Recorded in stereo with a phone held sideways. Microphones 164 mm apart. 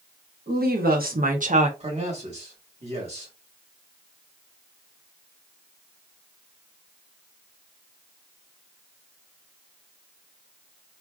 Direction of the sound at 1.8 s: 40° right (ahead or behind).